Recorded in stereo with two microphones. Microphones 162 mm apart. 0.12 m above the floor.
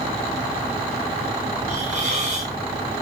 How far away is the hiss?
About 3.5 m.